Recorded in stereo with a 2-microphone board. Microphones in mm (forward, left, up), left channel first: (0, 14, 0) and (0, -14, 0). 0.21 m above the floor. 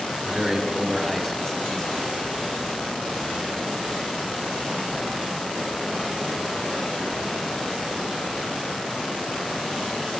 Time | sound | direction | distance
0.2 | a man speaking | 25° right (ahead or behind) | 1.0 m